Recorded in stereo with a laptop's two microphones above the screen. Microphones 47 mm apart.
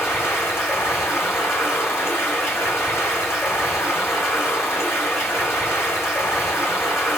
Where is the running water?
75° left (ahead or behind), 2 m.